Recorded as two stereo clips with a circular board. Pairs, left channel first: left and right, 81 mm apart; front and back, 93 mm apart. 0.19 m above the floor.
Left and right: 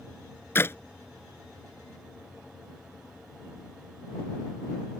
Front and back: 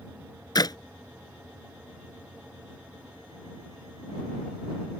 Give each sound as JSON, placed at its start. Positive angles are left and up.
{"t": 0.6, "sound": "a clap", "azimuth_deg": 35}